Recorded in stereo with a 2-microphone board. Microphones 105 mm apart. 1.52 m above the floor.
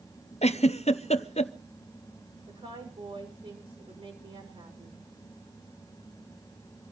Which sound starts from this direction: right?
A woman speaking, at 2.5 s.